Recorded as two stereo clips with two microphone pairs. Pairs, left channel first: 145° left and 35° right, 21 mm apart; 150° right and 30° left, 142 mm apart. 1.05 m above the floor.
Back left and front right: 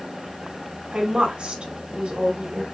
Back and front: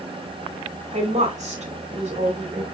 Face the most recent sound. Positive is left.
turn(degrees=-5)